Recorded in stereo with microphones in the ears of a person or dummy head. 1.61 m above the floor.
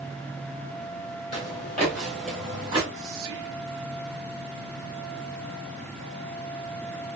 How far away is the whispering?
About 0.6 m.